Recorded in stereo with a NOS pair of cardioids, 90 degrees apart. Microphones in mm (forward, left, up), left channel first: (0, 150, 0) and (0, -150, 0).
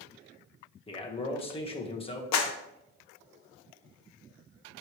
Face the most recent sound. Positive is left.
turn(degrees=70)